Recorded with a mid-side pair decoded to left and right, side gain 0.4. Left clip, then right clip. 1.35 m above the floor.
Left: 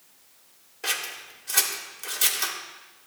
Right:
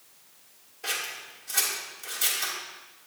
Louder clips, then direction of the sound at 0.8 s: Left 2 dB; 60° left.